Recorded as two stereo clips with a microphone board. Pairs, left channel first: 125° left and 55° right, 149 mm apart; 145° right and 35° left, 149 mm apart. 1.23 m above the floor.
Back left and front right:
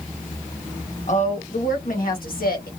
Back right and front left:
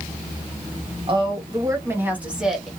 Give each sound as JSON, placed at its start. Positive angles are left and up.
{"t": 1.1, "sound": "a woman speaking", "azimuth_deg": 85, "distance_m": 1.4}